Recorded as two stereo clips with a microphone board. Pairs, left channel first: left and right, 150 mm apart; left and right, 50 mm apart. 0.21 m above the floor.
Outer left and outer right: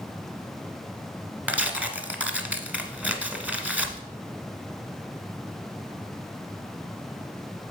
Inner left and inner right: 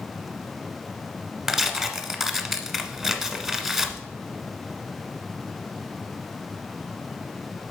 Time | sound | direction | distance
1.5 | tearing paper | 10° right (ahead or behind) | 1.0 m